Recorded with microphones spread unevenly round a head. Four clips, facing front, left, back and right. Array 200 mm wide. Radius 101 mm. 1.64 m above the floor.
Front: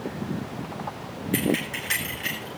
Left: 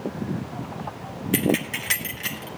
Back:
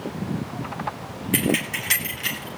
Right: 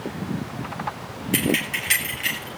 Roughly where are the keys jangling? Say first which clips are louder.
Left 1 dB, back 1 dB; behind left.